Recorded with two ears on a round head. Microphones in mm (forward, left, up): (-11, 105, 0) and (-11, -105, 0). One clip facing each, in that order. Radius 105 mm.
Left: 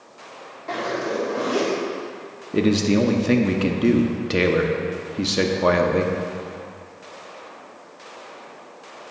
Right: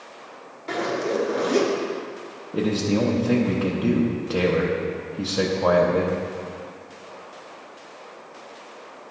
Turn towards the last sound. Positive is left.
turn(degrees=30)  # may be behind; listen again after turning